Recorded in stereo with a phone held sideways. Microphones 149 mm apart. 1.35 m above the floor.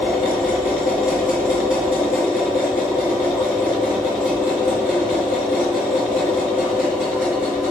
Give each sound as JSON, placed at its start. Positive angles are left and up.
{"t": 0.0, "sound": "a machine running", "side_deg": -5, "distance_m": 4.0}